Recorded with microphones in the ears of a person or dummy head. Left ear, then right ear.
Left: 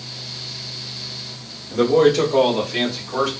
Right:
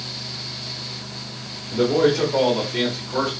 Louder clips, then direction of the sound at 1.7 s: Left 3 dB; 45° left (ahead or behind).